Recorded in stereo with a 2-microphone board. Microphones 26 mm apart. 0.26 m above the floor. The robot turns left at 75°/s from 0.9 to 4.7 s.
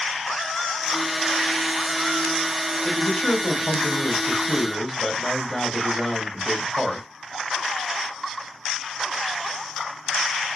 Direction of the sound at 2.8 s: 120° left.